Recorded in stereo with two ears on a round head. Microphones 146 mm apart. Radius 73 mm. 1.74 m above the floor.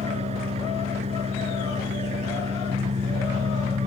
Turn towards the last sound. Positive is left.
turn(degrees=-40)  # may be behind; listen again after turning